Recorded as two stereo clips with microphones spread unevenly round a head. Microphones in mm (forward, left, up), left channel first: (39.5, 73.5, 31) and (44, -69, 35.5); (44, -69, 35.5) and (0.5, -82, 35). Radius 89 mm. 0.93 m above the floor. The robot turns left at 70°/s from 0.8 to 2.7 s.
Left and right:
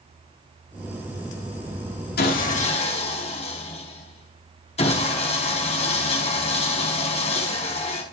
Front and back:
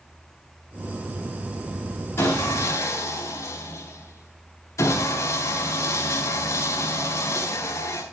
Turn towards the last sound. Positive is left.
turn(degrees=50)